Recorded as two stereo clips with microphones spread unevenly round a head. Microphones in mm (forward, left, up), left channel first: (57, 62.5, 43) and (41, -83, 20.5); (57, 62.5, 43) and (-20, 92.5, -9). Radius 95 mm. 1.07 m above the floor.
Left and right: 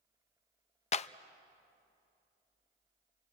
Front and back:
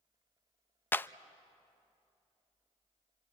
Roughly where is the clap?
Ahead left.